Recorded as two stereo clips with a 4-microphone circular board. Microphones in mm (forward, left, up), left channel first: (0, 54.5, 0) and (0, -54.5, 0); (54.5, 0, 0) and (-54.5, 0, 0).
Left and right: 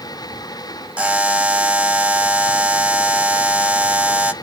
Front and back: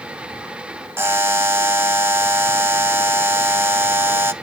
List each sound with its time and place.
1.0 s a buzzer: 150° right, 0.6 m